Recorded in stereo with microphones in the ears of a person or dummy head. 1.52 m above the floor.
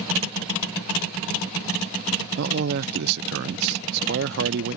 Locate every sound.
2.4 s a man speaking: 55° right (ahead or behind)